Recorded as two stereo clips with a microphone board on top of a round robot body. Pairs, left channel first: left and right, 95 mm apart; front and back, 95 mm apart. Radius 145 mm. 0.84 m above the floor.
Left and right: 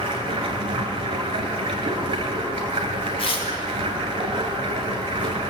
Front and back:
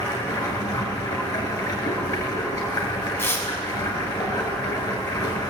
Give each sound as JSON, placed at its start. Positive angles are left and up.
{"t": 0.0, "sound": "running water", "azimuth_deg": -55, "distance_m": 2.0}
{"t": 3.2, "sound": "tearing paper", "azimuth_deg": 65, "distance_m": 2.0}